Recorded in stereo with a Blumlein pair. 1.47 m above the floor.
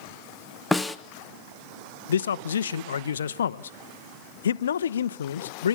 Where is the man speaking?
65° left, 0.8 m.